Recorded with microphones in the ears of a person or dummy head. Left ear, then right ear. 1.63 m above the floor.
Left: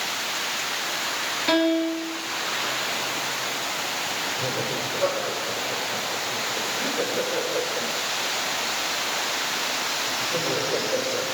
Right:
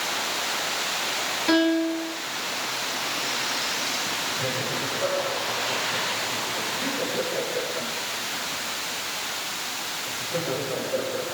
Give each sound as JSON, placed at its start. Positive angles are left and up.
{"t": 1.5, "sound": "a piano", "side_deg": 15, "distance_m": 4.0}
{"t": 4.4, "sound": "laughter", "side_deg": 50, "distance_m": 7.5}